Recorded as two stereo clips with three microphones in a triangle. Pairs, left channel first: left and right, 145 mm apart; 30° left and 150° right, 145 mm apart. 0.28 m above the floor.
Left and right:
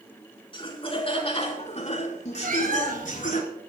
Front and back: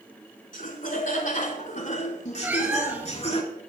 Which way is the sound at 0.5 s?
40° left.